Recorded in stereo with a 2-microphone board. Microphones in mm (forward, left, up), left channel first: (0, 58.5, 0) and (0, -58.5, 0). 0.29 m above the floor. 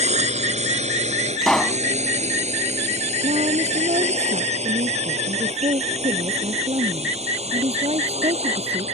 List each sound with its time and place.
0.0 s a drone: 70° right (ahead or behind); by 8.9 s 60° right (ahead or behind)
1.4 s a pop: 5° left (ahead or behind)
3.2 s a woman speaking: 60° right (ahead or behind)